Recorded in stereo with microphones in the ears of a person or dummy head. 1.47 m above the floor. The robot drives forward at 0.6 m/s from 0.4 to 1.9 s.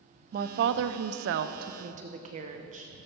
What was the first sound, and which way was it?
A woman speaking, 55° right (ahead or behind).